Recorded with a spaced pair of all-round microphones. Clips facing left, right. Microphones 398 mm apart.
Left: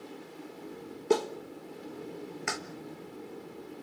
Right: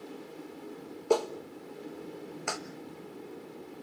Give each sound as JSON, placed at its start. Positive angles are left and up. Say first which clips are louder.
{"t": 1.1, "sound": "a clap", "louder": "even", "side_deg": 30, "distance_m": 1.3}